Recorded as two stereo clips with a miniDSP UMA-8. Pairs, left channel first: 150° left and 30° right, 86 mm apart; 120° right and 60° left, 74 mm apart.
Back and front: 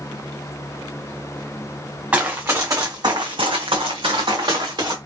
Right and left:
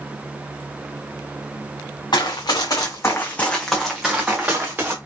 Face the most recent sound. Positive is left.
turn(degrees=0)